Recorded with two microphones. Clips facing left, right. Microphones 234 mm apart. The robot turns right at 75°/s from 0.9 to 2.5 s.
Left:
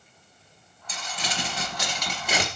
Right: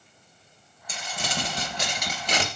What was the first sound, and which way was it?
Crumpling, 95° right.